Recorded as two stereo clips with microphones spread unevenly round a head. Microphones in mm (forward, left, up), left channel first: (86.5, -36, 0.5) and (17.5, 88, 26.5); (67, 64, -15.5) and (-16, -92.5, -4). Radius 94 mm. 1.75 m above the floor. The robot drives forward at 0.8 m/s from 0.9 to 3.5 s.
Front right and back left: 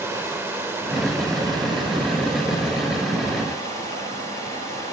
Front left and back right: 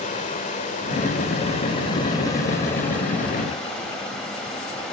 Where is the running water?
75° left, 1.7 m; by 4.9 s 150° left, 2.5 m.